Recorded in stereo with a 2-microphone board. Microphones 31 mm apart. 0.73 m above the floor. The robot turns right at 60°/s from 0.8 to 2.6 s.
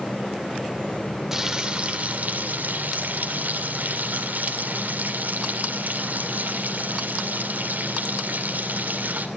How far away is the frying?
About 2.5 m.